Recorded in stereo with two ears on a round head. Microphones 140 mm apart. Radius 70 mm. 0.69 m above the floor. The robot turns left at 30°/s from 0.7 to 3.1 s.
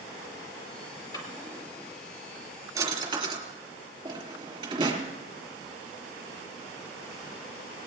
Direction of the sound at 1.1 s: 25° left (ahead or behind).